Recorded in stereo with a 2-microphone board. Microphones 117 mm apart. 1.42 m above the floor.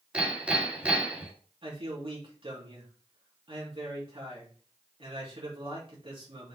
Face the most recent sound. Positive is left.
turn(degrees=-50)  # may be behind; listen again after turning